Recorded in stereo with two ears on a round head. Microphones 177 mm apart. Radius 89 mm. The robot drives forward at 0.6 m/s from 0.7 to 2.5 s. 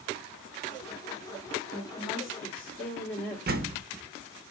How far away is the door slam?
About 0.5 m.